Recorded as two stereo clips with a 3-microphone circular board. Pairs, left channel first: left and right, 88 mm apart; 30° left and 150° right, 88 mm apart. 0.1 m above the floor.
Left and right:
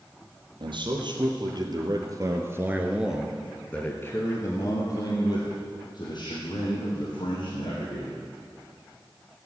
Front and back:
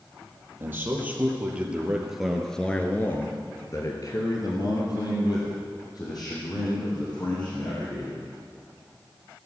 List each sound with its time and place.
0.6 s a man speaking: 85° right, 3 m; by 8.2 s 70° left, 5.5 m